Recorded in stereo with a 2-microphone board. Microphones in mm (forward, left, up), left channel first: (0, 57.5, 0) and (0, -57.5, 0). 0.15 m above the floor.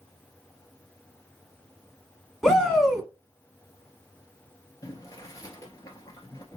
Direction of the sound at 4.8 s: 30° left (ahead or behind).